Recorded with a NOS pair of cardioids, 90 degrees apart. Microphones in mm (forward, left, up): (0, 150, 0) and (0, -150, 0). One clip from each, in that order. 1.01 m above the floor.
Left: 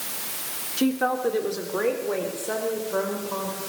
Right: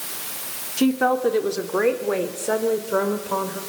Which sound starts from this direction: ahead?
A woman speaking, at 0.8 s.